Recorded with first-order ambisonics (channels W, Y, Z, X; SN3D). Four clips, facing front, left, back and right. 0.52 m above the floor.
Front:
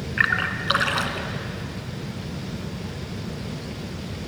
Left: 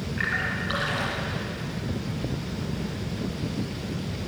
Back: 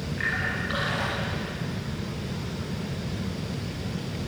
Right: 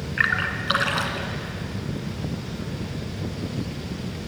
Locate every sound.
0.2 s a splash: 35° right, 1.9 m